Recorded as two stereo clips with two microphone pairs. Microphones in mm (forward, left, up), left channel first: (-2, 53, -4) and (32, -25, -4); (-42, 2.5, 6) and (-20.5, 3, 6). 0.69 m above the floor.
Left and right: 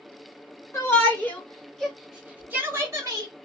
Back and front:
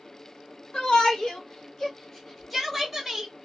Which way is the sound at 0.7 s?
160° left.